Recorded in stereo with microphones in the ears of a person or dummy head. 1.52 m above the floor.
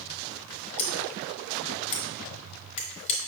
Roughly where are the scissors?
Left.